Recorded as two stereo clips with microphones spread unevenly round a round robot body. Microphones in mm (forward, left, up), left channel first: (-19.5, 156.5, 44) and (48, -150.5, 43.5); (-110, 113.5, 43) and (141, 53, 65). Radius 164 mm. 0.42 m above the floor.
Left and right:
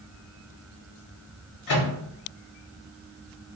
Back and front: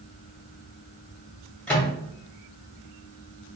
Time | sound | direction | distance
1.7 | a microwave | 80° left | 1.6 m